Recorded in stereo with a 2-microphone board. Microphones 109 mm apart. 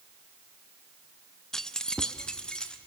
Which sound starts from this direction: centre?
Keys jangling, at 1.5 s.